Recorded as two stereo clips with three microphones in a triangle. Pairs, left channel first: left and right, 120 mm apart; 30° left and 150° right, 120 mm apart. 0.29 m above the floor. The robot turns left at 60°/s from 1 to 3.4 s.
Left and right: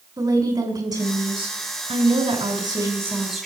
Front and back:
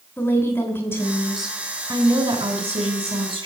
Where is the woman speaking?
35° right, 3 m; by 3.5 s straight behind, 3 m.